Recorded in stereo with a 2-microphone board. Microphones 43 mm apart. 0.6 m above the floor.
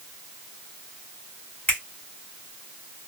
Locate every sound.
1.7 s a finger snap: 40° left (ahead or behind), 1.8 m